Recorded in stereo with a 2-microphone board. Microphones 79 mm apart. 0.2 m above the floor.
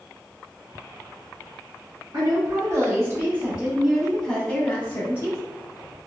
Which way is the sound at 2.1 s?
45° right (ahead or behind).